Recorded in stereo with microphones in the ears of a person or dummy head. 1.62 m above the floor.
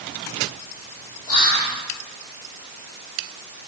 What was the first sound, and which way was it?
Whispering, 75° left (ahead or behind).